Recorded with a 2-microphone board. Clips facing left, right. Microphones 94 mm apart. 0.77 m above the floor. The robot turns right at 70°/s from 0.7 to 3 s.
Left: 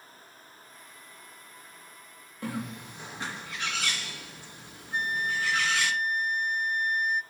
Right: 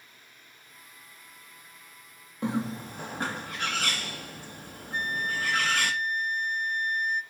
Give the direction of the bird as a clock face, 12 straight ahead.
5 o'clock.